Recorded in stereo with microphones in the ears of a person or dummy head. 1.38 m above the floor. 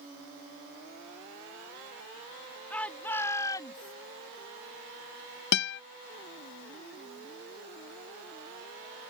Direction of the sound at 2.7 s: 10° left (ahead or behind).